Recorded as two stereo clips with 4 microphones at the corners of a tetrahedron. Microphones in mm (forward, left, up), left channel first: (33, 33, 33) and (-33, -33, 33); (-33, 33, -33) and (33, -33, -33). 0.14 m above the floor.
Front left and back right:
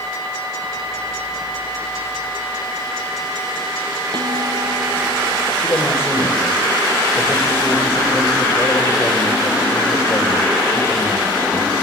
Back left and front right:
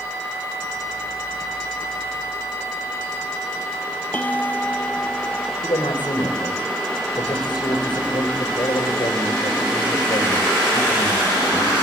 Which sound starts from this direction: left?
A man speaking, at 5.6 s.